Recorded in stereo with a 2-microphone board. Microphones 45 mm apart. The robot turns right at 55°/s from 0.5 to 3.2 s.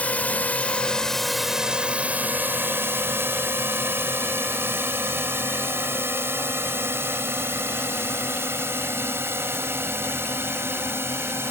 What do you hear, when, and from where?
0.0 s a drone: 35° left (ahead or behind); by 11.5 s 70° right (ahead or behind)